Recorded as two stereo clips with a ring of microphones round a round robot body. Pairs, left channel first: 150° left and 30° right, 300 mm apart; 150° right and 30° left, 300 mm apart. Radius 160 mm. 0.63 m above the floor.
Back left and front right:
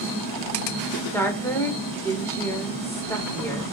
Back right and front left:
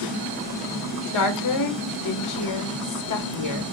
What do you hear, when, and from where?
1.1 s a woman speaking: 130° right, 1.1 m